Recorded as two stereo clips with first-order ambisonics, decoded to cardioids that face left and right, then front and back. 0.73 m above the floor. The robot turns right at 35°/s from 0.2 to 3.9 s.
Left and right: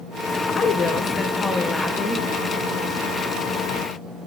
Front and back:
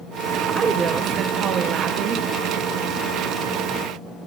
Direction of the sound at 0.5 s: 120° left.